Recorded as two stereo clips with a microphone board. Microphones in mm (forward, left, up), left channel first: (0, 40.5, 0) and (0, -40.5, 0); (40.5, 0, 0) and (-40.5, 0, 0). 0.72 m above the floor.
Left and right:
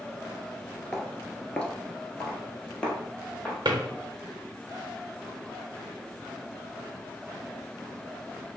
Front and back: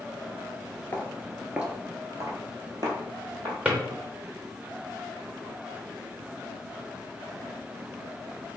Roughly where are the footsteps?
Ahead.